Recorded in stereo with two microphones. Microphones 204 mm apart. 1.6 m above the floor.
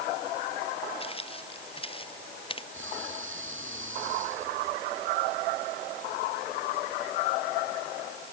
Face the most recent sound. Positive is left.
turn(degrees=-75)  # may be behind; listen again after turning